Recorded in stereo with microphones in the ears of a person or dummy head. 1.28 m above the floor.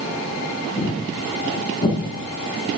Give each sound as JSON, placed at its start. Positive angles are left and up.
{"t": 0.8, "sound": "footsteps", "side_deg": 45, "distance_m": 7.0}